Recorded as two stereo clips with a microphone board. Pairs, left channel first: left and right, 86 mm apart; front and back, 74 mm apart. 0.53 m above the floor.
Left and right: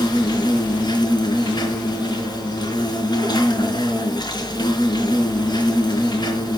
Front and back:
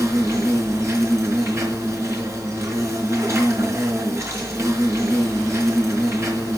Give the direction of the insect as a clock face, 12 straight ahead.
8 o'clock.